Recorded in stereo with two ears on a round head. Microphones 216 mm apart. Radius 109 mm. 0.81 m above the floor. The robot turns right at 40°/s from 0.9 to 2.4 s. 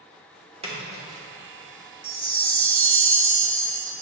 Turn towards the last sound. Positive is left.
turn(degrees=-75)  # may be behind; listen again after turning